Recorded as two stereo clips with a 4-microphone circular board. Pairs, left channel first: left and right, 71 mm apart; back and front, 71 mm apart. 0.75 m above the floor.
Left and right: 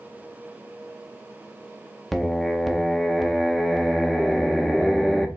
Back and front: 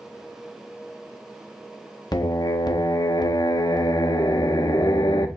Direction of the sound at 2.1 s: Straight behind.